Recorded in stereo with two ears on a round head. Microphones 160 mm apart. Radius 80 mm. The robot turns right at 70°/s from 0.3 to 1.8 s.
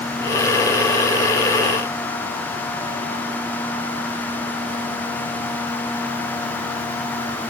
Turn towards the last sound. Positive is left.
No sound to turn to.